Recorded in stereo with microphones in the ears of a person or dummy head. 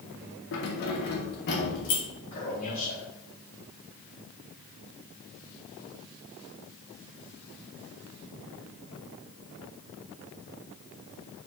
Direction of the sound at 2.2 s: 35° left (ahead or behind).